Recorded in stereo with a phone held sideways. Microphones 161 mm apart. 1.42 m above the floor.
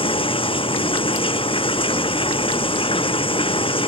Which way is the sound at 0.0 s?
35° left (ahead or behind).